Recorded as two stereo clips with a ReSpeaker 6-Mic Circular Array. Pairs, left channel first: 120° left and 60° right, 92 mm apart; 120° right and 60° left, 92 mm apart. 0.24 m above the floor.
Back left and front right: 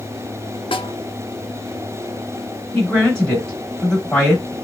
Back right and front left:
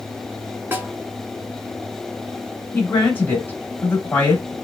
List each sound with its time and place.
0.7 s a snare drum: 125° left, 0.8 m
2.7 s a woman speaking: 170° right, 1.0 m